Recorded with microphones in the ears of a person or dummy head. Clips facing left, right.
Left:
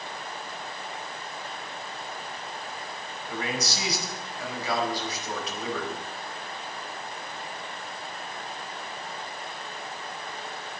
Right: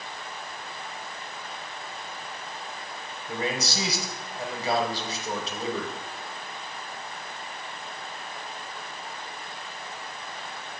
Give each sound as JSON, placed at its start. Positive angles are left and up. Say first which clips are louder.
{"t": 3.3, "sound": "a man speaking", "louder": "right 2 dB", "side_deg": -30, "distance_m": 6.0}